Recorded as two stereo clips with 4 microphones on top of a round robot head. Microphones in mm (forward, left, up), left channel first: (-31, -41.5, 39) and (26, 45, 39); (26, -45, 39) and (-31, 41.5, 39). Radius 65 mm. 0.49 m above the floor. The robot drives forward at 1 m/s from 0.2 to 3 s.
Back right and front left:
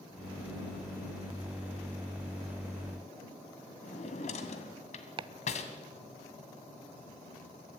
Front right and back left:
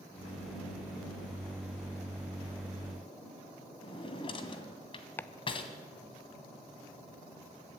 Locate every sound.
3.8 s a drawer: 100° right, 2.0 m
5.2 s chopping: 15° left, 0.5 m